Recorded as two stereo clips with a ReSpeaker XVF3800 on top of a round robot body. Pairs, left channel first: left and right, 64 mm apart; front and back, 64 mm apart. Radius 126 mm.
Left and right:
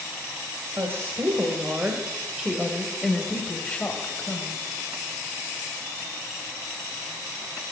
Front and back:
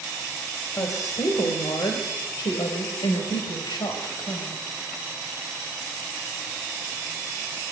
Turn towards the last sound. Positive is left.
turn(degrees=30)